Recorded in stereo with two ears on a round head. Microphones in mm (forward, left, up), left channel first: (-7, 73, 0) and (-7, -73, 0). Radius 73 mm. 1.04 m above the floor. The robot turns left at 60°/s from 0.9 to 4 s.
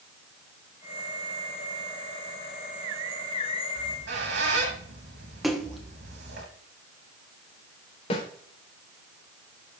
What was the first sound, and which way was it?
A squeak, 75° right (ahead or behind).